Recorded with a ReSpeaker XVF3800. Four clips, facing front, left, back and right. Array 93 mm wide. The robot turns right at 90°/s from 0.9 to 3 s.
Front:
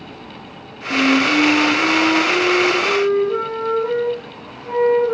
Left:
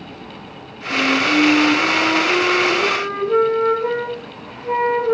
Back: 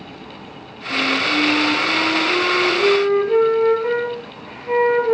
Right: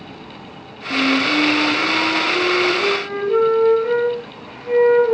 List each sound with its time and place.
0.9 s a flute: 5° right, 2.5 m; by 5.2 s 175° right, 2.5 m